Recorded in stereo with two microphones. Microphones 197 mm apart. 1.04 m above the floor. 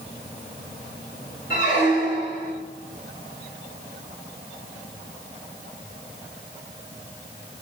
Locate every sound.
1.5 s a squeak: 75° left (ahead or behind), 1.7 m